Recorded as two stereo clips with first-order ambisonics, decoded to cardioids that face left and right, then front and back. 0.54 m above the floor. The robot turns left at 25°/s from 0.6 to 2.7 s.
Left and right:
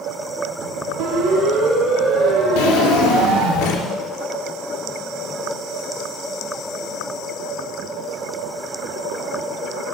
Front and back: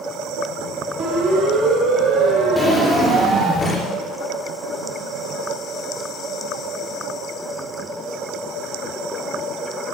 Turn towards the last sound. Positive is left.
turn(degrees=75)